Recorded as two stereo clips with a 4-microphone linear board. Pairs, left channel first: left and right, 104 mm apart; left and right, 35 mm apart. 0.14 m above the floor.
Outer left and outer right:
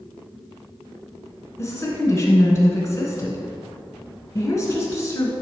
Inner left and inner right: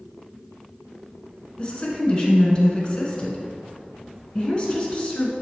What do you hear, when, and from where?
1.6 s a woman speaking: 30° left (ahead or behind), 1.4 m